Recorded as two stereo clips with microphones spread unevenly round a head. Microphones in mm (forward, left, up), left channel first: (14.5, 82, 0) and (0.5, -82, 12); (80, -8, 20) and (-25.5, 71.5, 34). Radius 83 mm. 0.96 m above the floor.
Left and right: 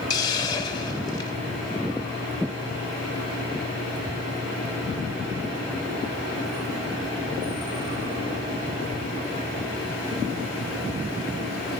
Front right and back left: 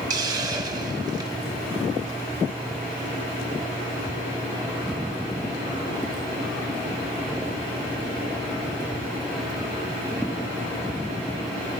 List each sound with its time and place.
0.1 s a hiss: 135° left, 0.7 m